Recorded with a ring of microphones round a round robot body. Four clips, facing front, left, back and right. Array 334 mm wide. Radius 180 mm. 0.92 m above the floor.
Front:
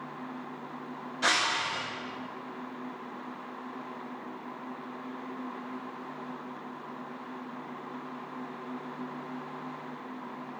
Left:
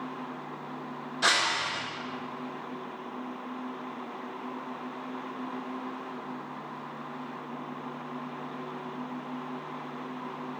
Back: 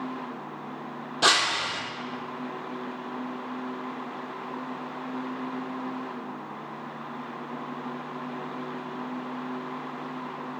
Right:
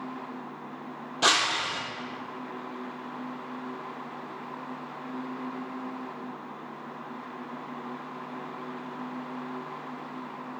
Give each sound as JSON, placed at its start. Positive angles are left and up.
{"t": 1.2, "sound": "breaking glass", "azimuth_deg": -155, "distance_m": 1.3}